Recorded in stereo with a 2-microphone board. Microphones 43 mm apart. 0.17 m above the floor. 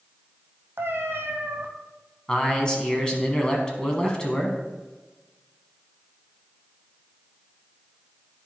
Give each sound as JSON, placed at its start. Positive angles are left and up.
{"t": 0.8, "sound": "a cat meowing", "side_deg": -70, "distance_m": 1.2}
{"t": 2.3, "sound": "a man speaking", "side_deg": 20, "distance_m": 1.2}